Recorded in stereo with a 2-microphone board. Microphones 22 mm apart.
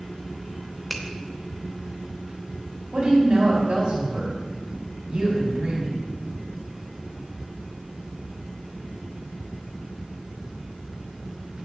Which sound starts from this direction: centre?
A finger snap, at 0.9 s.